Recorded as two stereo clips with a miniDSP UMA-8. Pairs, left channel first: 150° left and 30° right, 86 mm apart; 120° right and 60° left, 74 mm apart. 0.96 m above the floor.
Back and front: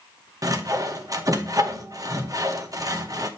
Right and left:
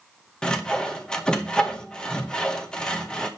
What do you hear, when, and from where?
0.4 s sawing: 45° right, 0.8 m